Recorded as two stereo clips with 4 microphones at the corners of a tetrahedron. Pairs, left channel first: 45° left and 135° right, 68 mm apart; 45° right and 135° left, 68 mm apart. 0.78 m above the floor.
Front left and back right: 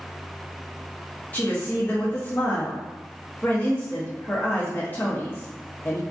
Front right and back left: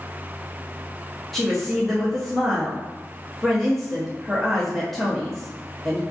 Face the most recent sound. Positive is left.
turn(degrees=40)